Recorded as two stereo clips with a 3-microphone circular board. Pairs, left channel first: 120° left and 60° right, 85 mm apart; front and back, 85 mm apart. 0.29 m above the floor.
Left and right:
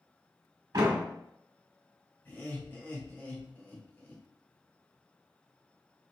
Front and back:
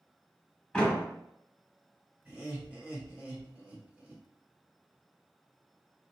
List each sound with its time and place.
0.7 s a door slam: 80° right, 1.3 m
2.2 s laughter: 140° left, 1.6 m